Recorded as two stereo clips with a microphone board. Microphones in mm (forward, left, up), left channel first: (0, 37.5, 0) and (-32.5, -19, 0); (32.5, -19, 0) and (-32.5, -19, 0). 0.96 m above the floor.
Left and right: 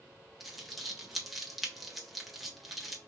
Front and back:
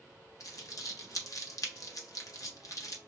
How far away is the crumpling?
About 0.8 m.